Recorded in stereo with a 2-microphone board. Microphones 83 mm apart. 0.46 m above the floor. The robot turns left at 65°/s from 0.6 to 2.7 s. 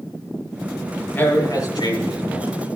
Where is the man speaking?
155° left, 4.5 m; by 2.5 s 70° left, 4.5 m.